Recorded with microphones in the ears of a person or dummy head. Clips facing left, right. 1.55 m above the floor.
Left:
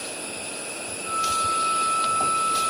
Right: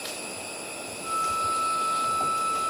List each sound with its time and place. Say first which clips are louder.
1.0 s a flute: left 2 dB; 40° right (ahead or behind), 3 m